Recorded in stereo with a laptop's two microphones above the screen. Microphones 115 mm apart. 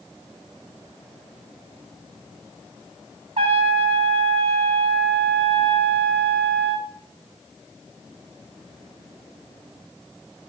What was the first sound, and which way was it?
A trumpet, 60° right (ahead or behind).